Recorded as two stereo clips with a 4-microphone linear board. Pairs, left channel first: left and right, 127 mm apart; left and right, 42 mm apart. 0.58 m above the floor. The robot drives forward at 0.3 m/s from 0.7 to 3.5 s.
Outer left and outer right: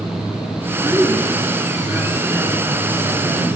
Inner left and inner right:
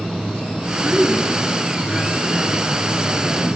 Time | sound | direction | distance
0.8 | a woman speaking | 15° right (ahead or behind) | 6.5 m